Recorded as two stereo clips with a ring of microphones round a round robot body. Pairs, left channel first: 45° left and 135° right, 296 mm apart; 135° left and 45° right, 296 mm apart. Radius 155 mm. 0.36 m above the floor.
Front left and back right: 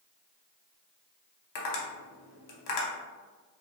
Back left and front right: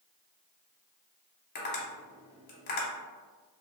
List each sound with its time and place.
1.6 s tapping: 75° left, 0.7 m